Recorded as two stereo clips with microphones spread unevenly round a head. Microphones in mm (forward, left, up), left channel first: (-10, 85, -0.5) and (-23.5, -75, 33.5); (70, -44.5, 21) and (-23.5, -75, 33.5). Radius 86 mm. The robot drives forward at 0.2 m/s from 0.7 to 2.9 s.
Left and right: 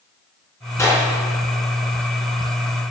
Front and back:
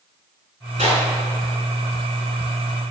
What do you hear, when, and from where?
0.8 s a clap: 160° left, 7 m